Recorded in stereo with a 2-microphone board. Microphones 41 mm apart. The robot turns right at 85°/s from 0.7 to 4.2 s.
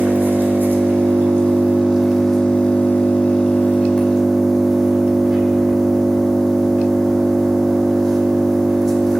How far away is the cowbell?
No cowbell in this recording.